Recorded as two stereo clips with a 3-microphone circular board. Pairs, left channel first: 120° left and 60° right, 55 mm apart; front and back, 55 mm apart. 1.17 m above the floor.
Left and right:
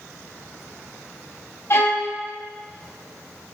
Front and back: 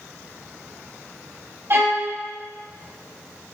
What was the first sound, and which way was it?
A violin, 150° left.